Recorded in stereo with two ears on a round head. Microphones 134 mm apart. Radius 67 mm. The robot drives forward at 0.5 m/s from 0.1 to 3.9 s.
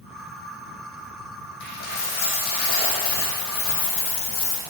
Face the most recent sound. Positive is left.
turn(degrees=75)  # may be behind; listen again after turning